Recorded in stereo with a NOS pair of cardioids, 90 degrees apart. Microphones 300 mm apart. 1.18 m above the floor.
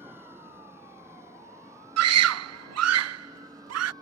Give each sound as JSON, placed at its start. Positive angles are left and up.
{"t": 0.0, "sound": "a vehicle", "azimuth_deg": -10}
{"t": 2.0, "sound": "a scream", "azimuth_deg": -60}